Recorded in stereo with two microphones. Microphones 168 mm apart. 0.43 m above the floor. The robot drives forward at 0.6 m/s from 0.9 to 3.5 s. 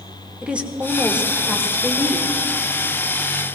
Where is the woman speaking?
10° right (ahead or behind), 1.3 m; by 2.3 s 5° right (ahead or behind), 1.7 m.